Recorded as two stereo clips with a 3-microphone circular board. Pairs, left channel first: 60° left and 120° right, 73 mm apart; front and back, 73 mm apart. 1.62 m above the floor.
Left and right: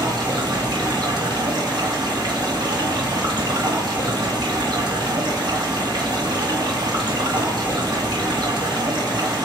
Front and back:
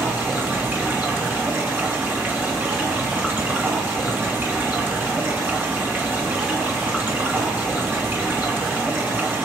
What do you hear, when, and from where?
0.0 s running water: 115° right, 2.5 m